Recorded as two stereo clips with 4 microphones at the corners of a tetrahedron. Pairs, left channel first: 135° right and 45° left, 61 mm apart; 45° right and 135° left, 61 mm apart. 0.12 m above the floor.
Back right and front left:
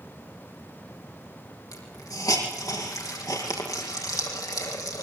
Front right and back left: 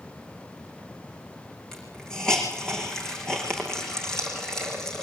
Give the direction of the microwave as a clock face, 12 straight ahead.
No microwave in this recording.